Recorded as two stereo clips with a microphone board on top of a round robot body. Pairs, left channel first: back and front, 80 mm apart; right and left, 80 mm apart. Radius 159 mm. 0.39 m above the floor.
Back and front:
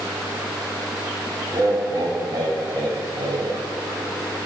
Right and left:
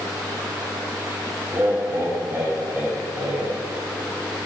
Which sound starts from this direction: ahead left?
Laughter, at 1.5 s.